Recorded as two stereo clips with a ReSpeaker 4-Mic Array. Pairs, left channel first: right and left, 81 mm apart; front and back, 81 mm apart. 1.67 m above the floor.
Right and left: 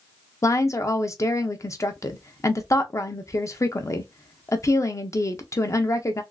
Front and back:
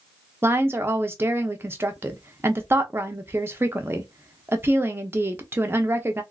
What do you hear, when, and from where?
0.4 s a woman speaking: 130° right, 0.7 m